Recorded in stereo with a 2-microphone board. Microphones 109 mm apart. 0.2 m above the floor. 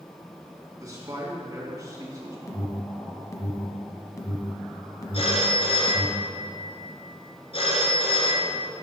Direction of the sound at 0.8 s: 35° right (ahead or behind).